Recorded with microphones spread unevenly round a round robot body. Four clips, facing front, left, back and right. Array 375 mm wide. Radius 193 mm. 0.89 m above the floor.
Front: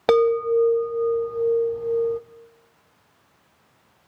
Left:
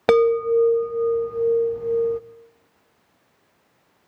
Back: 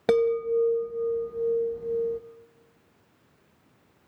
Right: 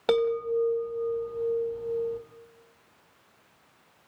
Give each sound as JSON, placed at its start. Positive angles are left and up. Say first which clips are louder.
{"t": 0.1, "sound": "a chime", "louder": "left 8 dB, front 5 dB", "azimuth_deg": 80, "distance_m": 0.5}